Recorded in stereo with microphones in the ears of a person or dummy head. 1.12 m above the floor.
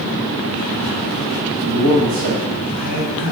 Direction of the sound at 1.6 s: 65° right (ahead or behind).